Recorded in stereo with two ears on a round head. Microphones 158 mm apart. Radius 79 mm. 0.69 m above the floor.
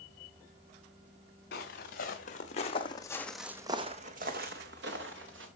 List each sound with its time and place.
1.5 s footsteps: 55° left (ahead or behind), 3 m; by 5.5 s 75° right (ahead or behind), 3 m